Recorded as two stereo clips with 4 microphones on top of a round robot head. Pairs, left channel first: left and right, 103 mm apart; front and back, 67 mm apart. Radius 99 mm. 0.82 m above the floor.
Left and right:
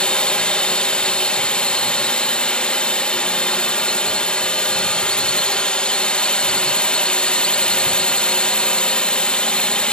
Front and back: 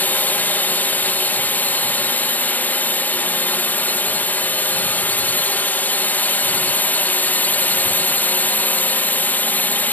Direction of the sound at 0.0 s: 20° left.